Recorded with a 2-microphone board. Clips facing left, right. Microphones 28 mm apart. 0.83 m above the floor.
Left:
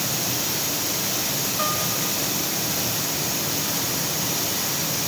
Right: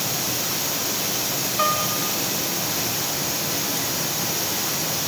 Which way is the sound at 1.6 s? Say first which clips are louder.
Right 5 dB; 20° right (ahead or behind).